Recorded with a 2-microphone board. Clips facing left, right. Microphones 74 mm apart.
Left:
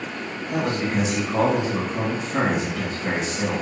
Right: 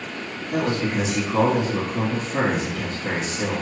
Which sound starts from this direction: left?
A man speaking, at 0.5 s.